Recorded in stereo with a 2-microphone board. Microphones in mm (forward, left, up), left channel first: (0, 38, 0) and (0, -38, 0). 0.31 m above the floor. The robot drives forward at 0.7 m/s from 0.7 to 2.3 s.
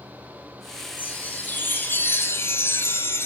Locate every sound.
1.0 s a chime: 20° left (ahead or behind), 2.5 m; by 3.3 s 35° left (ahead or behind), 1.6 m